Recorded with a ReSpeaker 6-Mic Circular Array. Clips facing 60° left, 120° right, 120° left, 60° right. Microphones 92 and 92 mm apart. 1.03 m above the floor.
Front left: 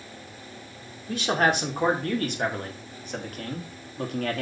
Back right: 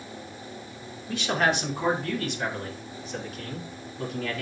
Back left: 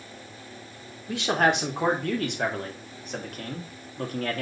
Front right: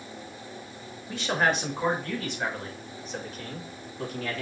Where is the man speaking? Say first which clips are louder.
Front left 2 dB, back left 3 dB; 105° left, 3.5 m; by 4.4 s 80° left, 2.5 m.